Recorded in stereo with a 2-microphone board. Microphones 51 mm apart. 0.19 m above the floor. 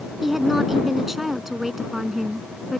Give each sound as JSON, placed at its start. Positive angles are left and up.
{"t": 0.2, "sound": "a woman speaking", "side_deg": -5}